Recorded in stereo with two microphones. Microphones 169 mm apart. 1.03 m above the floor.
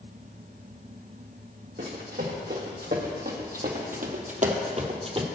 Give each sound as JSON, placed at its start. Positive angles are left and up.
{"t": 1.8, "sound": "running footsteps", "side_deg": -70, "distance_m": 3.0}